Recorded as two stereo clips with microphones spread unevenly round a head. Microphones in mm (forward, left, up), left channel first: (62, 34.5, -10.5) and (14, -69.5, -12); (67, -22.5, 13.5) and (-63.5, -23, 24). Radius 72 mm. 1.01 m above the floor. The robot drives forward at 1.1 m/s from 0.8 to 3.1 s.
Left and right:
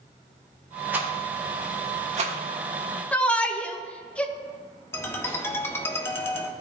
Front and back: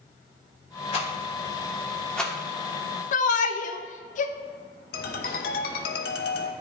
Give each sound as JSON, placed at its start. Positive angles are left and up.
{"t": 0.9, "sound": "a rattle", "azimuth_deg": -40, "distance_m": 2.0}
{"t": 3.1, "sound": "a shout", "azimuth_deg": -15, "distance_m": 0.9}
{"t": 4.9, "sound": "a ringtone", "azimuth_deg": -5, "distance_m": 1.0}